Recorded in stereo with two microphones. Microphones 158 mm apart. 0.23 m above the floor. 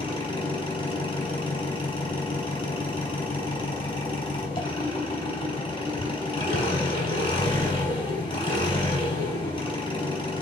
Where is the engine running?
30° left (ahead or behind), 3.5 m.